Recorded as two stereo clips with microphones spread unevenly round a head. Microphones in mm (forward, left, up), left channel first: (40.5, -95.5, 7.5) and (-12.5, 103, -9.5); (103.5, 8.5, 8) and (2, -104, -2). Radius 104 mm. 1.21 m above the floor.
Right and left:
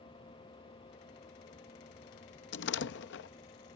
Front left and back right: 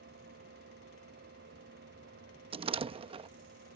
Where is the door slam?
80° right.